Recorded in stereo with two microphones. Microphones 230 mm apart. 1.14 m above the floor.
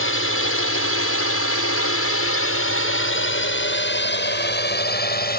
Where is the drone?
65° left (ahead or behind); by 5.4 s 40° left (ahead or behind).